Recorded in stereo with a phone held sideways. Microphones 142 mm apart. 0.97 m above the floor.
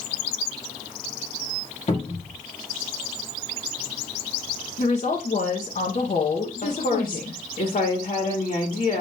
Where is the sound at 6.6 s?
70° left (ahead or behind), 1.6 m.